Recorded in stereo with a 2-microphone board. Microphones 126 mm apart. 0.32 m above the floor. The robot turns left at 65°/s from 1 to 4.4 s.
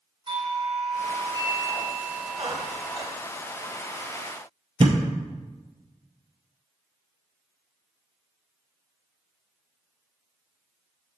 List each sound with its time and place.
0.3 s a doorbell: 100° right, 2 m; by 3.1 s 125° left, 2 m
2.4 s a squeak: 105° right, 1.0 m; by 3.1 s 155° right, 1.0 m
4.8 s a thud: 45° right (ahead or behind), 0.8 m